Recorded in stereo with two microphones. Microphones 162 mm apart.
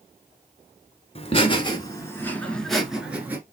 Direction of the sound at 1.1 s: 40° left (ahead or behind).